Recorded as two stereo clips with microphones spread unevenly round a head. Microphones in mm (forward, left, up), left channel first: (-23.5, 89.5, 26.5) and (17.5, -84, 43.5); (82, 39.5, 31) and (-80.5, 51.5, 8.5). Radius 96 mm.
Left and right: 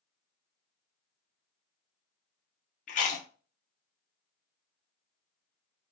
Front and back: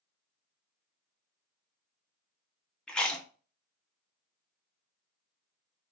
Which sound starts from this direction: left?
Chewing, at 2.9 s.